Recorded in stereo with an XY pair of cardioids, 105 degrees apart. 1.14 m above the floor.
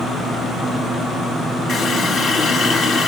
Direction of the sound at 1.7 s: 60° left.